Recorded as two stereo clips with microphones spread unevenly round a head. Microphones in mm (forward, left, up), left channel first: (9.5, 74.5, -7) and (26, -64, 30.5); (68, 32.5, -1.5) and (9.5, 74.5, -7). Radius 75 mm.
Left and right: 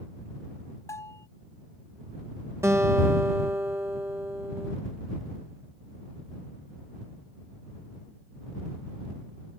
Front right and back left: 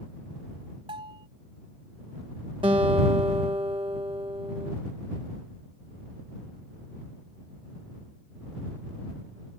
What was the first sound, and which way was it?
A bell, 175° left.